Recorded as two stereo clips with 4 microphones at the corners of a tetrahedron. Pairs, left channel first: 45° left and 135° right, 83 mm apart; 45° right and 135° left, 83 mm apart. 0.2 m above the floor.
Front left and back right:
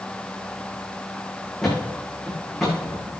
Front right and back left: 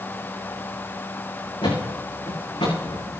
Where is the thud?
40° right, 7.5 m.